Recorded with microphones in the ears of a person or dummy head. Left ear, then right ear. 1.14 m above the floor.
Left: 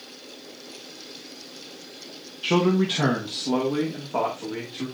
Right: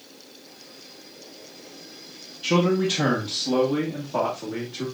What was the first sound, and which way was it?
A man speaking, 15° left (ahead or behind).